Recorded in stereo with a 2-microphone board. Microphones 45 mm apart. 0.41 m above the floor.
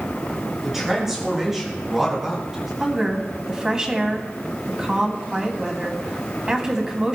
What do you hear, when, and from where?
0.6 s a man speaking: 5° right (ahead or behind), 6.5 m
2.8 s a woman speaking: 15° right (ahead or behind), 2.5 m